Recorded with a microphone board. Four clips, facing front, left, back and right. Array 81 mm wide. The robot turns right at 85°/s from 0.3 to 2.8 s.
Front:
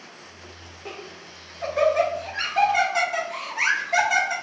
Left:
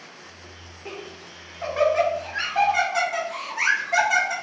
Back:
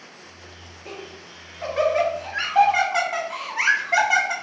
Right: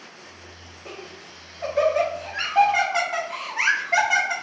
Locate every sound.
0.8 s laughter: 40° left, 1.2 m; by 4.3 s 155° right, 1.2 m